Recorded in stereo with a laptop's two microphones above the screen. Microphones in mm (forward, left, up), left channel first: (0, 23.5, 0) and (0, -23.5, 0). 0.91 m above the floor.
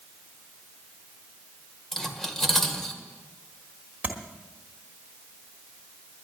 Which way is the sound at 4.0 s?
40° right (ahead or behind).